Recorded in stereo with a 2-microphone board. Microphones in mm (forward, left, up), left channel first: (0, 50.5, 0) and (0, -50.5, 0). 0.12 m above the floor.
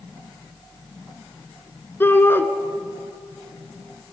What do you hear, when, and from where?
2.0 s a shout: 20° left (ahead or behind), 1.8 m